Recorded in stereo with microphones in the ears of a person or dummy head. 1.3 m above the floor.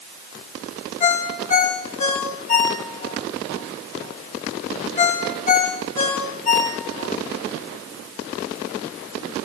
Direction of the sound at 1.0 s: 40° left (ahead or behind).